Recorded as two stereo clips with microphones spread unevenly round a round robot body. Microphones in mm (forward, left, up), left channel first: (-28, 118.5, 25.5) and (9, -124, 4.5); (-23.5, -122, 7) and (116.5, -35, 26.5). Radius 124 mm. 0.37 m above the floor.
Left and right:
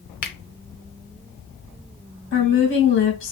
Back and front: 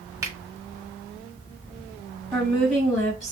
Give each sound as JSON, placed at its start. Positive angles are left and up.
{"t": 0.2, "sound": "a finger snap", "azimuth_deg": 100, "distance_m": 0.7}
{"t": 2.3, "sound": "a woman speaking", "azimuth_deg": 125, "distance_m": 1.8}